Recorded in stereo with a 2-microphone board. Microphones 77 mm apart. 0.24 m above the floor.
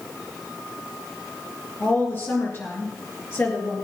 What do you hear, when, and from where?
1.8 s a woman speaking: 35° left (ahead or behind), 4.5 m